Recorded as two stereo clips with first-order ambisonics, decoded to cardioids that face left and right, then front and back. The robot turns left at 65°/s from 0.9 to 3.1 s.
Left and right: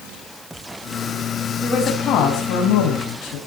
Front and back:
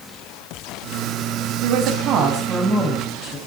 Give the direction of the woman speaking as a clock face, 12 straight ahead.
6 o'clock.